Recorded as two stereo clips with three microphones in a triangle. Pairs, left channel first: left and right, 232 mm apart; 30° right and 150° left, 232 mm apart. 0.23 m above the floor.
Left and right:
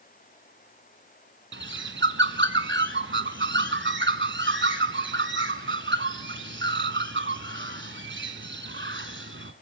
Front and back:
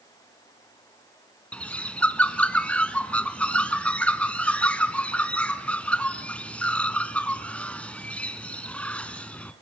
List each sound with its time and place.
1.5 s a bird: 115° right, 1.0 m